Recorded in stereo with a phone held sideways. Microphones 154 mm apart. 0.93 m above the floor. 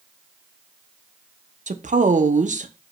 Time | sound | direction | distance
1.7 | a woman speaking | 60° right (ahead or behind) | 0.5 m